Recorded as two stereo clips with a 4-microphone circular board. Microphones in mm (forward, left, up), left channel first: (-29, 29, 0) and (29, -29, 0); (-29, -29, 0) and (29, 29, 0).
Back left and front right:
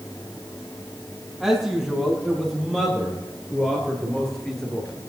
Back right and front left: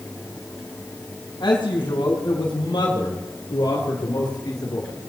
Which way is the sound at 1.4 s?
135° right.